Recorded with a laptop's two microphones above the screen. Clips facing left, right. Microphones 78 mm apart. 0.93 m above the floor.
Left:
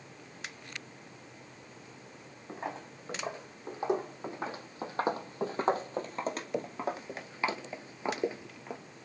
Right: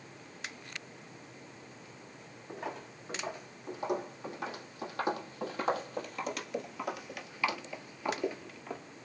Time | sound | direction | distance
2.5 | footsteps | 25° left (ahead or behind) | 3 m